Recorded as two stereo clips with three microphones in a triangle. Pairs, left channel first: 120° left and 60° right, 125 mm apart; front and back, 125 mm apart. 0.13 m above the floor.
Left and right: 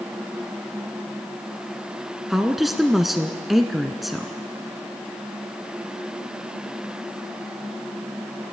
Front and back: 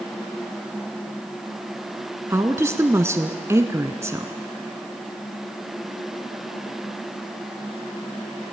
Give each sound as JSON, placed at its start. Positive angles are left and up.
{"t": 2.3, "sound": "a woman speaking", "azimuth_deg": -145, "distance_m": 1.1}